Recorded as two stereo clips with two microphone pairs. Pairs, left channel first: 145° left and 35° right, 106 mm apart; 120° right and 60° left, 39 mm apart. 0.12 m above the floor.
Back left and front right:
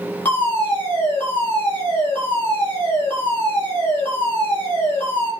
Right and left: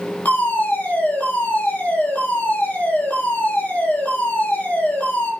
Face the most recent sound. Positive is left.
turn(degrees=-145)